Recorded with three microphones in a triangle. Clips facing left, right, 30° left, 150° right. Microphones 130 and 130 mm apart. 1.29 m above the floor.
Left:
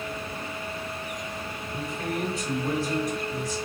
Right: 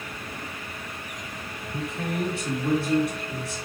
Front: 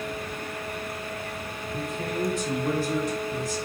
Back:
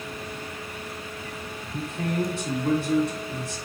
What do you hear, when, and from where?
1.7 s a man speaking: 120° right, 1.8 m